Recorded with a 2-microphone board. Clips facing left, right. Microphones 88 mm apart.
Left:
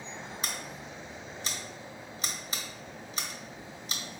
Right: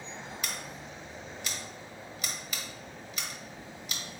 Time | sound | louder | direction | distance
0.4 | scissors | left 1 dB | 30° left (ahead or behind) | 0.7 m